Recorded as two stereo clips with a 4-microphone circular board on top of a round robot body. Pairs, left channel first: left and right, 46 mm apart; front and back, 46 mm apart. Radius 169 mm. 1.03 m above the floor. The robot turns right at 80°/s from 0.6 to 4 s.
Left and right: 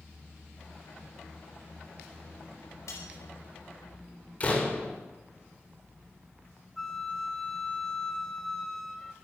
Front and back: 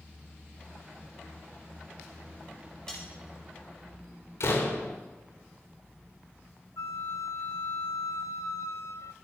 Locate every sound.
2.9 s cutlery clinking: 80° left, 3.5 m; by 3.1 s 95° left, 3.5 m
4.4 s a door slam: 30° left, 3 m
6.8 s a flute: 10° left, 0.7 m